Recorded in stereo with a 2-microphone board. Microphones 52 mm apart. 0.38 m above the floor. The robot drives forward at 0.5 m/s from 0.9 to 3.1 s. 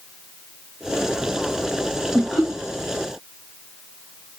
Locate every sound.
2.1 s laughter: 15° left (ahead or behind), 1.4 m